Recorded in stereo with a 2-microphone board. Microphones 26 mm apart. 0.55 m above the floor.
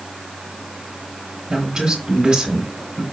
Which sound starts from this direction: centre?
A woman speaking, at 1.5 s.